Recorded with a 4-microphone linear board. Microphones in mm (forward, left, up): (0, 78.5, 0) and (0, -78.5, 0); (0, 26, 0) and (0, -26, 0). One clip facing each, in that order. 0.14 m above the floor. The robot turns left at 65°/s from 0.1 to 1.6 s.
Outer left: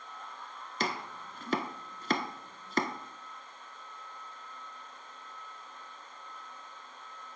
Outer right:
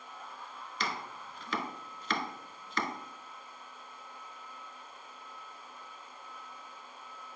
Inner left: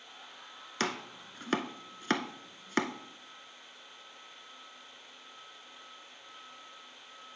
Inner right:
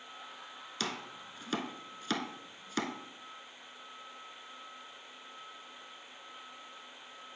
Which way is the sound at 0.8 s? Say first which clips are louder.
Outer left 3 dB, inner left 5 dB; 45° left (ahead or behind).